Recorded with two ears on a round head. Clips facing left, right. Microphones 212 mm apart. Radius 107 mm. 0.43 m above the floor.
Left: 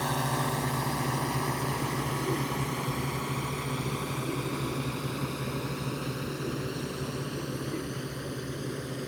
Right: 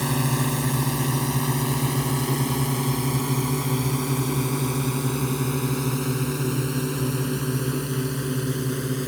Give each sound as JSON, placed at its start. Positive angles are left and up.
{"t": 0.0, "sound": "a drone", "side_deg": -40}